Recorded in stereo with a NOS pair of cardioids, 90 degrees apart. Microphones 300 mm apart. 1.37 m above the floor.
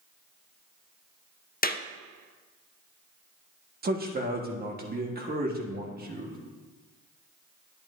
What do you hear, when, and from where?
1.6 s a clap: 30° left, 0.6 m
3.8 s a man speaking: 30° right, 1.5 m